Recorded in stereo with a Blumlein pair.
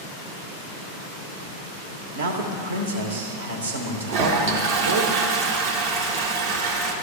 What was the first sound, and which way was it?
A man speaking, 70° right.